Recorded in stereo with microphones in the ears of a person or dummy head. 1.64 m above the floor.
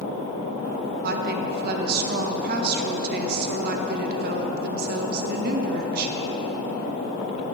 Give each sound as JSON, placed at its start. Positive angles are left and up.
{"t": 1.0, "sound": "a woman speaking", "side_deg": -55, "distance_m": 0.8}